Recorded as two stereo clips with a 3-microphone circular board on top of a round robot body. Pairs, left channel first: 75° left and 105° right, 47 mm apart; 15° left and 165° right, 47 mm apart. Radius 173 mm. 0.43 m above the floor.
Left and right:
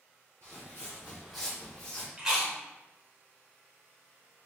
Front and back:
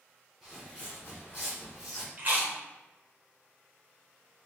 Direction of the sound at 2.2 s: 175° right.